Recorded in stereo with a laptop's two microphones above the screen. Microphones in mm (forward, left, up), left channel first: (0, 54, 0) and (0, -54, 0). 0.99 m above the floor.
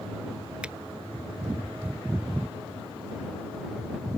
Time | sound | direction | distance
0.6 | a finger snap | 10° right (ahead or behind) | ?